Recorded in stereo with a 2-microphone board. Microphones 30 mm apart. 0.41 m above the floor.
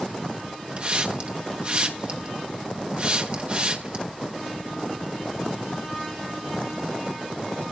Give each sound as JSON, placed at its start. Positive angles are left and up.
{"t": 0.8, "sound": "a hiss", "side_deg": -35, "distance_m": 1.4}